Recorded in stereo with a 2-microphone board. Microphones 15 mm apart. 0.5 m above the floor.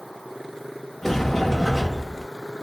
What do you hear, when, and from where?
1.0 s a sliding door: 15° left (ahead or behind), 0.7 m